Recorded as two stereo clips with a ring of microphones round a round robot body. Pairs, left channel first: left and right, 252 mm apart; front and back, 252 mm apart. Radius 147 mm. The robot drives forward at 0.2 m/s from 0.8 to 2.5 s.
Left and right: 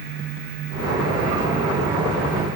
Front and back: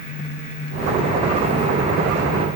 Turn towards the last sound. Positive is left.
No sound to turn to.